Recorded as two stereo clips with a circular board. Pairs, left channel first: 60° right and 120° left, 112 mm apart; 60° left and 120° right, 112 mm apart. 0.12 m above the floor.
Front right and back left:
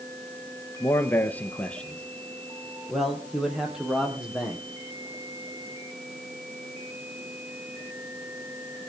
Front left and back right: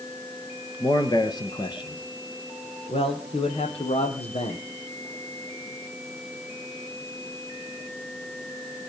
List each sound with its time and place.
0.8 s a man speaking: 5° left, 2.5 m; by 4.6 s 40° left, 4.5 m